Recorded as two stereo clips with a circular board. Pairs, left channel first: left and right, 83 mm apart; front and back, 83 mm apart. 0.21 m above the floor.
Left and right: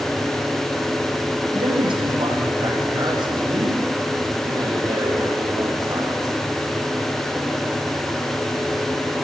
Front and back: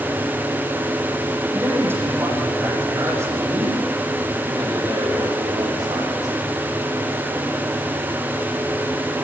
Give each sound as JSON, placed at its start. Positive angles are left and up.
{"t": 1.5, "sound": "a man speaking", "azimuth_deg": -115, "distance_m": 8.5}